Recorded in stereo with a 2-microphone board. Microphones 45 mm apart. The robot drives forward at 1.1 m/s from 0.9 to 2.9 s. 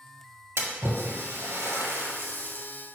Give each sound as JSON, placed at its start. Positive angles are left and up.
{"t": 0.6, "sound": "a splash", "side_deg": -70, "distance_m": 1.4}